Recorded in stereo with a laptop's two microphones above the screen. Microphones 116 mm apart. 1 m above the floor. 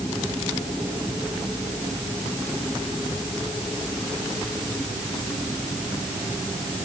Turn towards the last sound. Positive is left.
No sound to turn to.